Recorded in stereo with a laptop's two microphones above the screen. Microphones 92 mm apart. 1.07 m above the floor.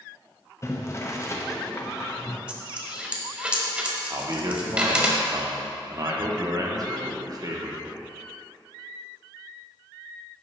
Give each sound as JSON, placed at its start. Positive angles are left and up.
{"t": 0.6, "sound": "boiling", "side_deg": 30, "distance_m": 0.8}
{"t": 2.5, "sound": "a dropped coin", "side_deg": -10, "distance_m": 0.9}
{"t": 4.1, "sound": "a man speaking", "side_deg": -45, "distance_m": 1.0}